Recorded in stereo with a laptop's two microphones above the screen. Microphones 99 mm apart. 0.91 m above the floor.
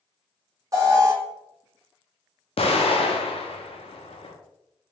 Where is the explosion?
70° left (ahead or behind), 0.7 m.